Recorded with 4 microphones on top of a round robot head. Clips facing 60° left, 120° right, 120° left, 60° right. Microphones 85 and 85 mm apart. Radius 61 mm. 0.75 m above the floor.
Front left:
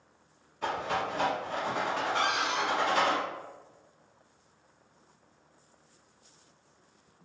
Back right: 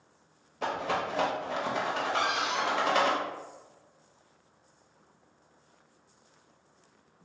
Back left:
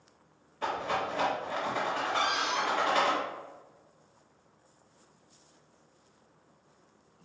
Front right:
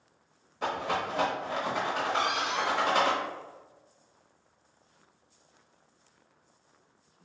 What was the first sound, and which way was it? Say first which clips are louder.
A rattle: back right 1 dB, front right 1 dB; 130° right.